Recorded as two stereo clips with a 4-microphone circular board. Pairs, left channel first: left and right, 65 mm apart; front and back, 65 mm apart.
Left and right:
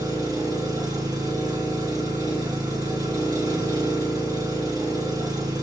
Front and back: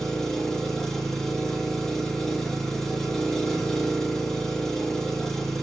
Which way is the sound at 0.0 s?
85° right.